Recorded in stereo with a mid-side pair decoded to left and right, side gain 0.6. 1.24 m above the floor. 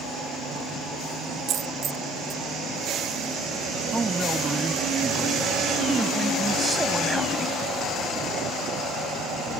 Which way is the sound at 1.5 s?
55° right.